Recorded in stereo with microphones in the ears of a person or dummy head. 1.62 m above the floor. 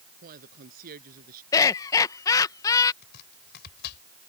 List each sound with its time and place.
0.2 s a woman speaking: 50° right (ahead or behind)
1.5 s laughter: 20° left (ahead or behind)
3.0 s chopping: 55° left (ahead or behind)